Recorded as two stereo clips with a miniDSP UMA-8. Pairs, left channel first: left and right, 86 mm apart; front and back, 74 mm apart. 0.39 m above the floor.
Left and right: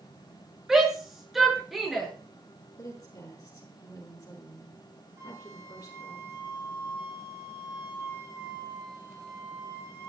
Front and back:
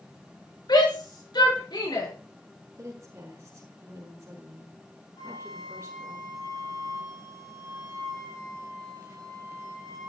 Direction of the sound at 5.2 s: 30° right.